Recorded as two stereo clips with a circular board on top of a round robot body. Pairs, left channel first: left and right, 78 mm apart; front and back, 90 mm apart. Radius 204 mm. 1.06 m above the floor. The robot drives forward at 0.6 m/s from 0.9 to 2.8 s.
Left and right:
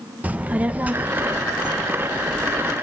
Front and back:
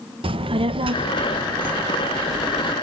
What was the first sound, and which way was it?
A child speaking, 160° right.